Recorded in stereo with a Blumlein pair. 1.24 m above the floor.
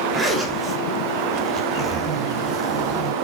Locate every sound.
0.1 s a zipper: 10° right, 2.5 m